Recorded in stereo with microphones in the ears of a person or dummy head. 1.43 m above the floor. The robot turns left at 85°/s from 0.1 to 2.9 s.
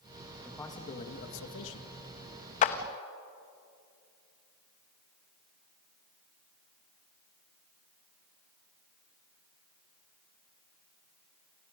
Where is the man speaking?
Straight behind, 2 m; by 1.9 s 55° left, 2 m.